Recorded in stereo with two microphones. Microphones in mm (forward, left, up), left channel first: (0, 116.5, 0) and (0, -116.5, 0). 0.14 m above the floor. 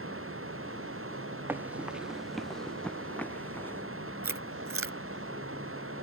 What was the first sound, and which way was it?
Running water, 70° right (ahead or behind).